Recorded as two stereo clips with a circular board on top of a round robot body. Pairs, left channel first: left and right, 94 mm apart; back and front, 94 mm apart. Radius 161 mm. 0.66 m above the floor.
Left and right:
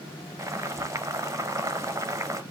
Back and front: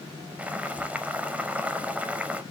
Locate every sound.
0.4 s boiling: 65° right, 1.0 m